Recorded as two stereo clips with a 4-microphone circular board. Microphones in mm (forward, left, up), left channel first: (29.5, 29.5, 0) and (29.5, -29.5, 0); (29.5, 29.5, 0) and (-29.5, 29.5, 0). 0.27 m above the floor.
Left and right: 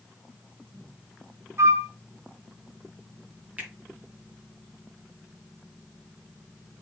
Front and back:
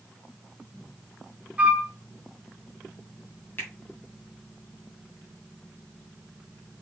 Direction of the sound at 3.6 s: 35° right.